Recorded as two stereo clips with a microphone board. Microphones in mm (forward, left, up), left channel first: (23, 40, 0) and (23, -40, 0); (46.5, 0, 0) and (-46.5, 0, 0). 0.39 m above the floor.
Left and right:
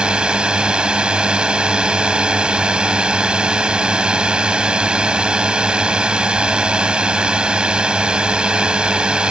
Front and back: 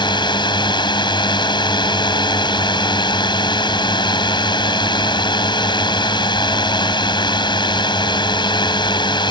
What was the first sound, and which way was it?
A drone, 15° right.